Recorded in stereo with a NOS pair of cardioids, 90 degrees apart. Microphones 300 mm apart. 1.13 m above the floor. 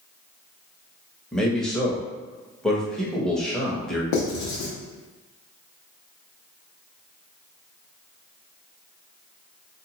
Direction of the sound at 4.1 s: 70° left.